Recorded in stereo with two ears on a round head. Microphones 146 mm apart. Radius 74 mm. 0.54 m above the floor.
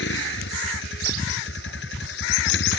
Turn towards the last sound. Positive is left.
turn(degrees=85)